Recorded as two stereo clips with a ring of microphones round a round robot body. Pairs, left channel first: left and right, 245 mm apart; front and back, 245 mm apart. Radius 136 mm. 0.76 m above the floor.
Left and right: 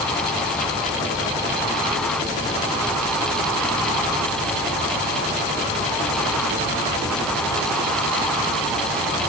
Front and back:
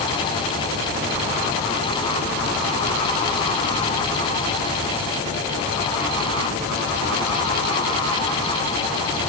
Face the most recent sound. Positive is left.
No sound to turn to.